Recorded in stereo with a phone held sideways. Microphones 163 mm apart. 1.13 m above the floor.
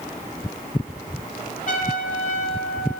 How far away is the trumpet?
About 1.5 m.